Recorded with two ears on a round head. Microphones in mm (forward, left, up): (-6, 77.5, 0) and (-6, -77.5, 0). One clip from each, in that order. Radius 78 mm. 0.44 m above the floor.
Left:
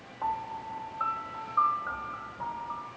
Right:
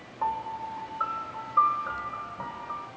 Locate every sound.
0.2 s a piano: 30° right (ahead or behind), 1.3 m